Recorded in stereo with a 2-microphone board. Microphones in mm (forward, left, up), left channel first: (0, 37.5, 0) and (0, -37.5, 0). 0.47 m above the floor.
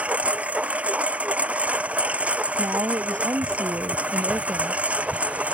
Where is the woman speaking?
40° right (ahead or behind).